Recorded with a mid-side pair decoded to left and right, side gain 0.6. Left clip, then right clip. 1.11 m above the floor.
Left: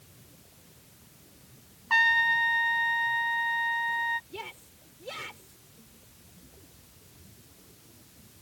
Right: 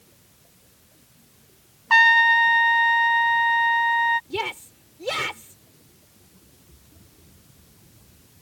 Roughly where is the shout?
Ahead right.